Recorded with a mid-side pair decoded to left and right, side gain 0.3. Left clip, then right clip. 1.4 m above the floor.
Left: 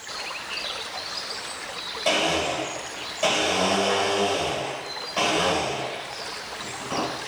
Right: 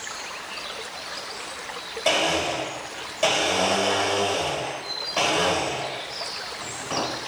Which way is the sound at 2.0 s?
30° right.